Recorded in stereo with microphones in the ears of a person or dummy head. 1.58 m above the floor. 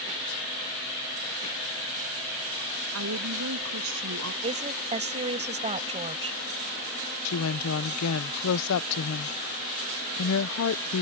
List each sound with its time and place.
2.9 s a woman speaking: 85° right
4.4 s a woman speaking: 30° right (ahead or behind)
7.2 s a woman speaking: 85° left